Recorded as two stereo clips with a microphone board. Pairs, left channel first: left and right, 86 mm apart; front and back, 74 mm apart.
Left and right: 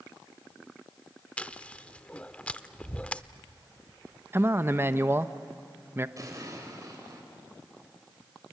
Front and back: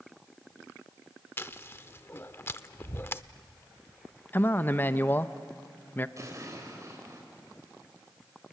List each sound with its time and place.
1.4 s chewing: 25° left, 0.6 m
4.3 s a man speaking: 50° right, 0.7 m
6.2 s an explosion: 135° right, 4 m